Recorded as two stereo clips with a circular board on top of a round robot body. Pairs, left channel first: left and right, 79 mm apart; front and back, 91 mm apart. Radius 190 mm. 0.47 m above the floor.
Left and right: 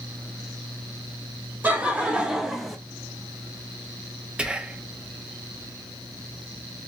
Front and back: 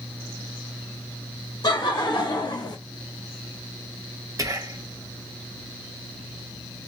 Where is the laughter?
25° right, 1.5 m; by 2.8 s straight ahead, 1.2 m.